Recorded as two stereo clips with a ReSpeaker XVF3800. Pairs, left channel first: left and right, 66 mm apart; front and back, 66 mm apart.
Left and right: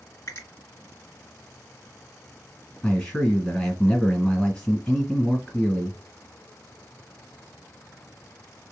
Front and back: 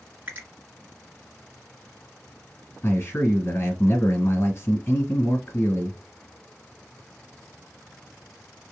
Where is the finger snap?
125° left, 1.8 m.